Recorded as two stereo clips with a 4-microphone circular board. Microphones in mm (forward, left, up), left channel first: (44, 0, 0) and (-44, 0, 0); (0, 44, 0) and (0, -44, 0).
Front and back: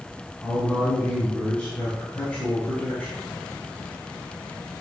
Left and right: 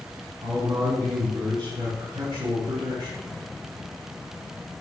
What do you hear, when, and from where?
0.4 s a man speaking: 75° right, 4.5 m